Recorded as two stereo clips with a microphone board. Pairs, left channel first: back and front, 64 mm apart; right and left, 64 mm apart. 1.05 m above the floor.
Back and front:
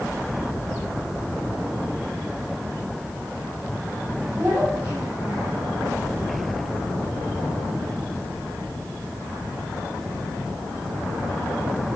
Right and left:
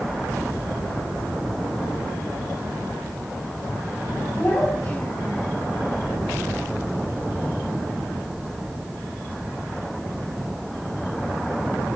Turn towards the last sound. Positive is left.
turn(degrees=-45)